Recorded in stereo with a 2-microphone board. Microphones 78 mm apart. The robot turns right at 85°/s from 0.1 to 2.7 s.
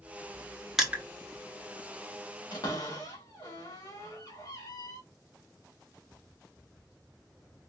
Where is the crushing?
5° right (ahead or behind), 1.0 m; by 1.0 s 25° right (ahead or behind), 1.0 m.